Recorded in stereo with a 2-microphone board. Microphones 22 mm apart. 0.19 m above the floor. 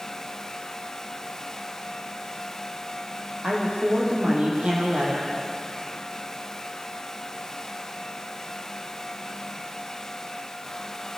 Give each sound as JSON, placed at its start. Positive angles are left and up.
{"t": 3.4, "sound": "a woman speaking", "side_deg": -65, "distance_m": 9.5}